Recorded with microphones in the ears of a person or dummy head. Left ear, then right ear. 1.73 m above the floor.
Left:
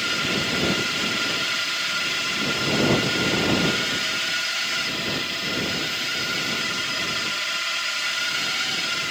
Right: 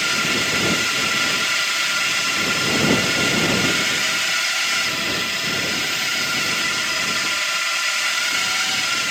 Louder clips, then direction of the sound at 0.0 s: Right 4 dB; 25° right (ahead or behind).